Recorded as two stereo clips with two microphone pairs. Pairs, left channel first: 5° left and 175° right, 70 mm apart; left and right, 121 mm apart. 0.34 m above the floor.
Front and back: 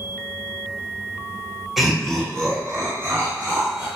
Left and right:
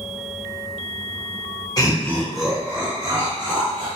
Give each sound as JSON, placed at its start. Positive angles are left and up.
{"t": 1.8, "sound": "laughter", "azimuth_deg": 105, "distance_m": 1.3}